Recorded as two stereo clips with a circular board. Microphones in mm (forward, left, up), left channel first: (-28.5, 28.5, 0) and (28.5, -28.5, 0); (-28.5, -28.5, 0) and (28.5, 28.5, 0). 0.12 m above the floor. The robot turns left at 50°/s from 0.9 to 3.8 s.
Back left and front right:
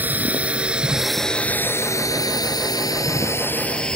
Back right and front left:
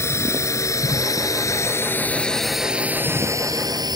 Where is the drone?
105° right; by 4.0 s 55° left.